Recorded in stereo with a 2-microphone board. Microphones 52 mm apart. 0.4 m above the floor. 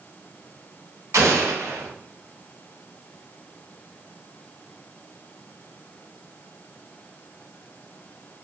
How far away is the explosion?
About 0.8 m.